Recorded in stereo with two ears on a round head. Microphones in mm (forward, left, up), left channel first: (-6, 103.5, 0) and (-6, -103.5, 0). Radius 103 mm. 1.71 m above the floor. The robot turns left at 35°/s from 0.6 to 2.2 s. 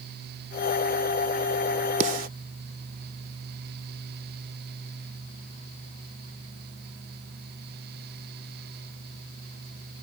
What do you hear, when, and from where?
2.0 s a snare drum: 30° right (ahead or behind); by 2.3 s 40° right (ahead or behind)